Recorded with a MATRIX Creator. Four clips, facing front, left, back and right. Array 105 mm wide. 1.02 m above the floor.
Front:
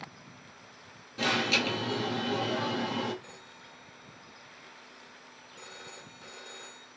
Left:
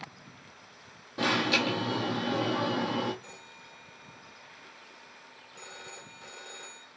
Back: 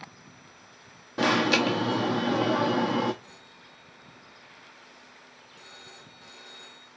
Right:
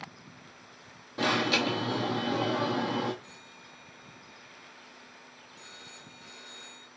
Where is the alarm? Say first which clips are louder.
Even, back 7 dB; straight behind, 1.0 m.